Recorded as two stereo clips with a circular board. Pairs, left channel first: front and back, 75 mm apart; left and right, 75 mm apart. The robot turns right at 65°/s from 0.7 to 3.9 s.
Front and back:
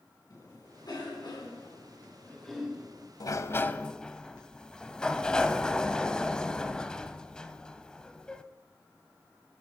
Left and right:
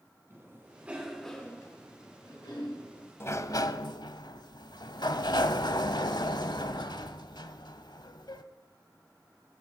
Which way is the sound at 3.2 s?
35° left.